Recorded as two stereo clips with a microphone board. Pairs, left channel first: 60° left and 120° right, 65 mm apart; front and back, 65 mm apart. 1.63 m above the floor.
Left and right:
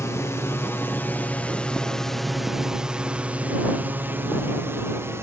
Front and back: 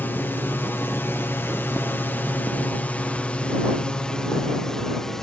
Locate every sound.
0.0 s a drone: 45° left; by 5.2 s 80° right